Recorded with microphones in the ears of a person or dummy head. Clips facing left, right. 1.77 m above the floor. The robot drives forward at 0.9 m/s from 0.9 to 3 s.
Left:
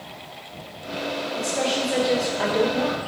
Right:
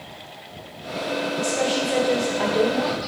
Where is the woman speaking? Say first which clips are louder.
Right 1 dB; centre (ahead or behind), 2.5 m; by 3.0 s 5° left (ahead or behind), 0.9 m.